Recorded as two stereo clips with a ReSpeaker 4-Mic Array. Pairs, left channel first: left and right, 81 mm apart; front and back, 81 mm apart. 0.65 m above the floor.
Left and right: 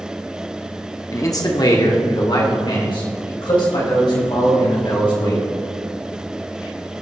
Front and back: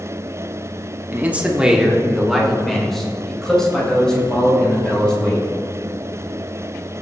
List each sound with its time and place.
1.1 s a man speaking: 120° left, 1.2 m; by 5.5 s 80° left, 6 m